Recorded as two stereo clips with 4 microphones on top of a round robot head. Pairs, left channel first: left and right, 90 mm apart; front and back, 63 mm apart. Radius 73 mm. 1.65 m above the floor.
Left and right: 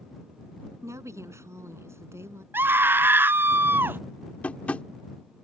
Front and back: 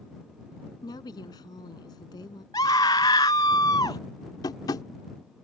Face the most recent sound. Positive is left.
turn(degrees=15)